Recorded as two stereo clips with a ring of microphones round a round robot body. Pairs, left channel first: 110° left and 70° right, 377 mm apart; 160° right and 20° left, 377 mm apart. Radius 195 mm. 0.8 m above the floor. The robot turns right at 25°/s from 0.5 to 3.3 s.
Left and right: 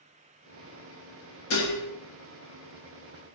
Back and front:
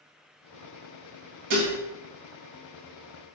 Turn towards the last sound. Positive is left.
turn(degrees=105)